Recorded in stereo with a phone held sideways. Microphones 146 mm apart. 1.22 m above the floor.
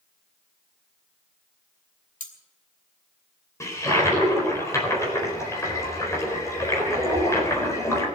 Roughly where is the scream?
No scream in this recording.